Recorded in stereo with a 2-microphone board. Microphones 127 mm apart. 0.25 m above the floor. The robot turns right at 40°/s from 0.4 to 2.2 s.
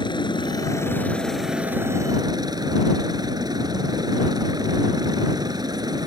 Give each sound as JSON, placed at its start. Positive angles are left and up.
{"t": 0.0, "sound": "a helicopter", "azimuth_deg": 140}